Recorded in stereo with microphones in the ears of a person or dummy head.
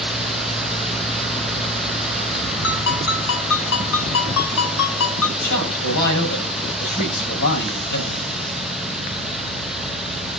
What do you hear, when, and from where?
0.0 s a fan: 5° right (ahead or behind), 0.7 m
2.6 s a ringtone: 80° left, 7 m
5.4 s a man speaking: 60° left (ahead or behind), 7 m